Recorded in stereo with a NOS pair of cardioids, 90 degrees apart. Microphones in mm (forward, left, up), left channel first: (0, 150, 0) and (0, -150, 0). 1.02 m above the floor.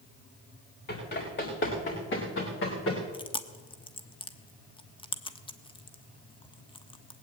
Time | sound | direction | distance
0.9 | running footsteps | 35° left | 7.5 m
3.1 | chewing | 15° left | 1.1 m